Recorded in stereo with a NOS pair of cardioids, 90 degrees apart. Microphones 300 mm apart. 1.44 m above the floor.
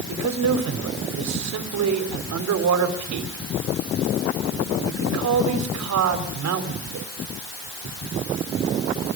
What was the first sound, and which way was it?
A man speaking, 65° right.